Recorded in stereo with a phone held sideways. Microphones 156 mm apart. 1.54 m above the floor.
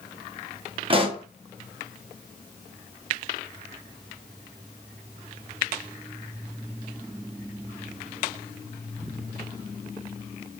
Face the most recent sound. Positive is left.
turn(degrees=-35)  # may be behind; listen again after turning